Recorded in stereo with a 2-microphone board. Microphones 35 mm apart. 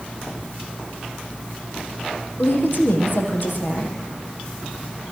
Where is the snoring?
No snoring in this recording.